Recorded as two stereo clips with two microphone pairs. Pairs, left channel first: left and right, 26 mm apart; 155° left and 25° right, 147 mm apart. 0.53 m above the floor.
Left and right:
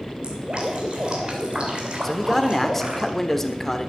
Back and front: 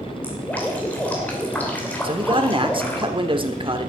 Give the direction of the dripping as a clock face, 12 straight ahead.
4 o'clock.